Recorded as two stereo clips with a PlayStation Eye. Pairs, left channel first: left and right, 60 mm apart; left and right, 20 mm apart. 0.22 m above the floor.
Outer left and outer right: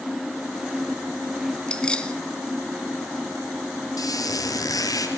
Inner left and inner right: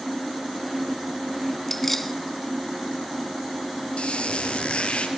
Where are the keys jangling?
15° left (ahead or behind), 1.5 m.